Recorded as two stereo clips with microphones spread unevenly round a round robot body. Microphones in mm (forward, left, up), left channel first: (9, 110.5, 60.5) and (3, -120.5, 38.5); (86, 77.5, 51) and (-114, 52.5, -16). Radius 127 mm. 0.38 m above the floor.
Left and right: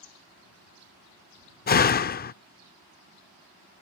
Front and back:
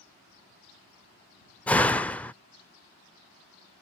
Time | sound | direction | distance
1.7 | a door slam | 115° left | ?